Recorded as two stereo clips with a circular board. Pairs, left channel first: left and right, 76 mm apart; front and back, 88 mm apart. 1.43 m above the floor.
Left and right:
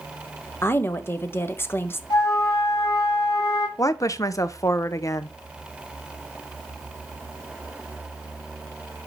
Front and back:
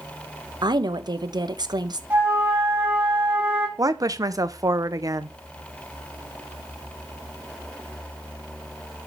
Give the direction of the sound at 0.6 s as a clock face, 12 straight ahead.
7 o'clock.